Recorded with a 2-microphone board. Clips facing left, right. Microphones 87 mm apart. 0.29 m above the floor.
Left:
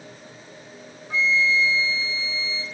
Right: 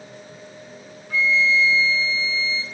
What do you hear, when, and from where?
1.1 s a flute: 25° left (ahead or behind), 1.7 m